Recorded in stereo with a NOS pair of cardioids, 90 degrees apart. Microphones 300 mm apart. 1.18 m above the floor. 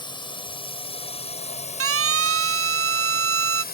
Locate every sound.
0.0 s a drone: 15° left; by 3.7 s 30° left
1.8 s a siren: 45° right